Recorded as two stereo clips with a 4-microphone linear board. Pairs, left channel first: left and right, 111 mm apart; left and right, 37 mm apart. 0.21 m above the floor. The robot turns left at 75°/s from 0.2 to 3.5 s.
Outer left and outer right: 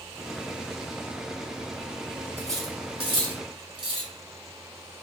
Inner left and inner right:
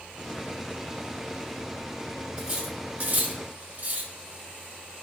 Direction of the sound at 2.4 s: 20° right (ahead or behind).